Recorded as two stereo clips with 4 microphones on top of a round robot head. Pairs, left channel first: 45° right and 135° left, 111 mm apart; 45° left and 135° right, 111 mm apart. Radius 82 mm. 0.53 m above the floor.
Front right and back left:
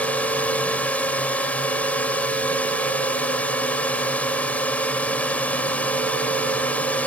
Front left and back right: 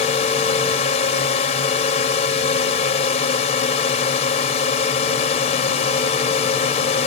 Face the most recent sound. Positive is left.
turn(degrees=30)